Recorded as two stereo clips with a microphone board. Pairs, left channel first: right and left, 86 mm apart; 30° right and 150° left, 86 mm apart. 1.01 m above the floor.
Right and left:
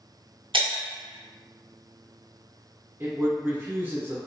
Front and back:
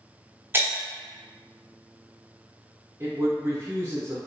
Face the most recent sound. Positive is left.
turn(degrees=130)